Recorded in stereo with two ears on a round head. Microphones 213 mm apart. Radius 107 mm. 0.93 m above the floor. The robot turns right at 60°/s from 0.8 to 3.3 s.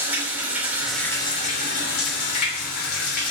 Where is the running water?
5° right, 3 m; by 3.3 s 145° left, 3 m.